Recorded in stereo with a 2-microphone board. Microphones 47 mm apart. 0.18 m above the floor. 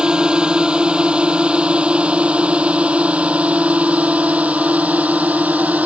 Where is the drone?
20° right (ahead or behind); by 5.9 s 35° right (ahead or behind).